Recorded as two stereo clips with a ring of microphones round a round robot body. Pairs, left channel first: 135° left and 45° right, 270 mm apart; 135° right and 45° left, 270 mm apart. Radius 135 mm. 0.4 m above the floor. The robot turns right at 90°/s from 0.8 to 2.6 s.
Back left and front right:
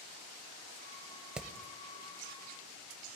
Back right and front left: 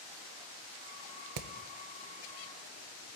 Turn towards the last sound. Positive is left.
turn(degrees=150)